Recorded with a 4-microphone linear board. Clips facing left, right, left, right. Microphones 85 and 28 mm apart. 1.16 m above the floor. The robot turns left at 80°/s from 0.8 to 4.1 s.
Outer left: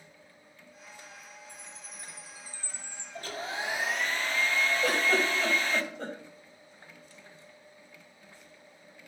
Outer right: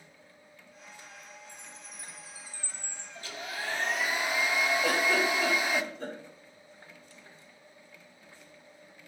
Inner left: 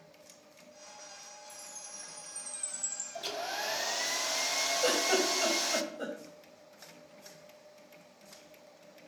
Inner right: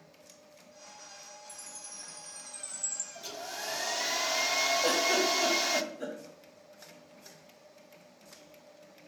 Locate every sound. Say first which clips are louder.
1.5 s a chime: even, even; 75° right, 1.7 m; by 3.0 s 160° left, 1.7 m
3.1 s a hair dryer: outer left 3 dB, inner left 7 dB; 60° left, 0.7 m; by 5.8 s 15° right, 0.7 m
4.8 s a giggle: outer left 1 dB, inner right 1 dB; 70° left (ahead or behind), 4 m